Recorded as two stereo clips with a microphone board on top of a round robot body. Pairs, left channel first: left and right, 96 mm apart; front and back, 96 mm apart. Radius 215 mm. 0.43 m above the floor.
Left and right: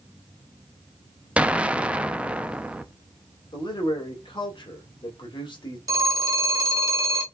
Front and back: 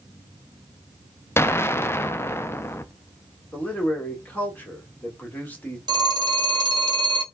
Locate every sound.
1.4 s an explosion: 25° right, 0.7 m
3.5 s a man speaking: 70° left, 2 m
5.9 s a phone ringing: 140° right, 1.2 m